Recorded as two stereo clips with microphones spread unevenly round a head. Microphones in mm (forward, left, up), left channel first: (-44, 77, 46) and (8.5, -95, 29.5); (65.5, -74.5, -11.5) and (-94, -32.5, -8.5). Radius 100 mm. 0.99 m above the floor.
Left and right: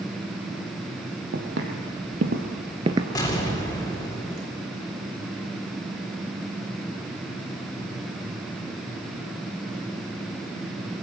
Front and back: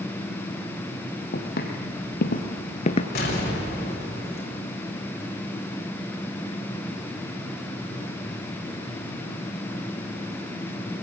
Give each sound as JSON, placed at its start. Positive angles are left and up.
{"t": 1.3, "sound": "footsteps", "azimuth_deg": -35, "distance_m": 3.0}
{"t": 3.1, "sound": "an explosion", "azimuth_deg": 35, "distance_m": 4.0}